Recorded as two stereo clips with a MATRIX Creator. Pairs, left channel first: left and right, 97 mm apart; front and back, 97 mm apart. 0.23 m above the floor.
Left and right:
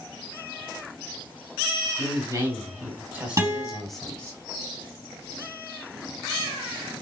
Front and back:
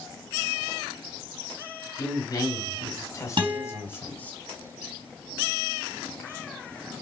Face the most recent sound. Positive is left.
turn(degrees=-145)